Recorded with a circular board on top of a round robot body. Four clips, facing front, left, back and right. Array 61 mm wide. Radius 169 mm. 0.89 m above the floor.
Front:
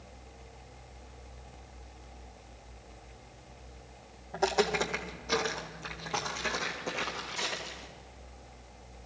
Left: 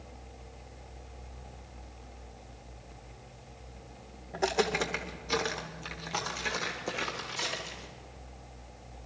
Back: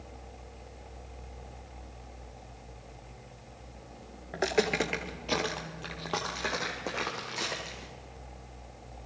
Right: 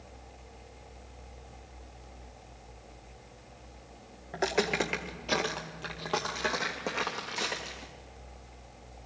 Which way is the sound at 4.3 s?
150° right.